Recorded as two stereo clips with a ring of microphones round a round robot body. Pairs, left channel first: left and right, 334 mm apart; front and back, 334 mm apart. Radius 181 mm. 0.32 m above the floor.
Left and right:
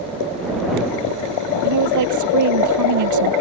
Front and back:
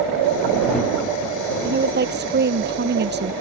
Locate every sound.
1.6 s a woman speaking: 120° right